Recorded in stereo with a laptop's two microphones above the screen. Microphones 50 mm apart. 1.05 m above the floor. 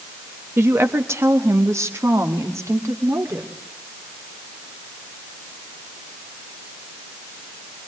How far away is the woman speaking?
About 1.0 m.